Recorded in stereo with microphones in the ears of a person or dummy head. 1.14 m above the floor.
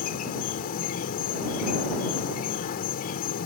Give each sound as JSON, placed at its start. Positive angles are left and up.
{"t": 0.0, "sound": "an insect", "side_deg": 45}